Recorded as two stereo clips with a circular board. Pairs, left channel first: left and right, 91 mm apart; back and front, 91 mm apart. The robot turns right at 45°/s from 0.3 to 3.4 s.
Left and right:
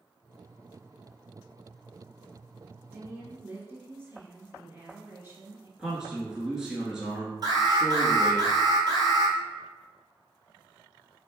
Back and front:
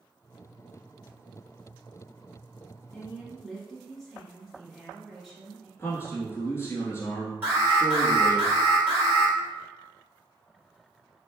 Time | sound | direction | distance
2.9 | a woman speaking | 115° right | 1.7 m
5.8 | a man speaking | 165° right | 1.1 m
7.4 | an alarm | 60° right | 1.7 m